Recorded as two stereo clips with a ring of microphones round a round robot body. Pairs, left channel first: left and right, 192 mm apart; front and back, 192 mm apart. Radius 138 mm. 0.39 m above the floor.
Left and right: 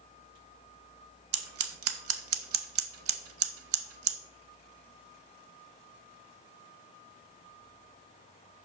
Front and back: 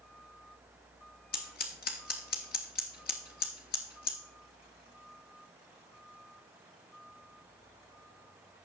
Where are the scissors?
60° right, 0.5 m.